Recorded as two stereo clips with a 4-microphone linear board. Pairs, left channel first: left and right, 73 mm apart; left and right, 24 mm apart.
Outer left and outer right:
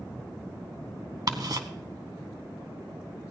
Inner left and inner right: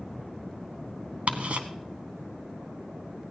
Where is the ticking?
65° right (ahead or behind), 1.0 m.